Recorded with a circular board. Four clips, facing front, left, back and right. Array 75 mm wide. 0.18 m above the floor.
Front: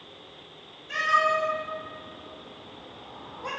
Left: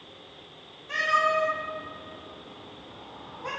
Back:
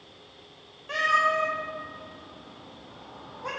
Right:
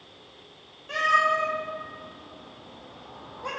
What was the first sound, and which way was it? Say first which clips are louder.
A cat meowing: right 2 dB, even; 145° right.